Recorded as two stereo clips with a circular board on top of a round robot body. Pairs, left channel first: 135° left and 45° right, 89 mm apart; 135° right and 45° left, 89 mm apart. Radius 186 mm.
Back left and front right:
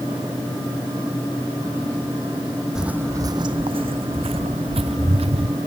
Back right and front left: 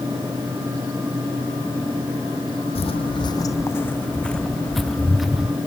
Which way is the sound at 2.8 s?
130° right.